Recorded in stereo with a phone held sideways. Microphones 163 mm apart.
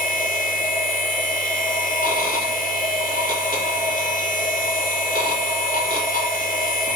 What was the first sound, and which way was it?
A machine running, 60° left (ahead or behind).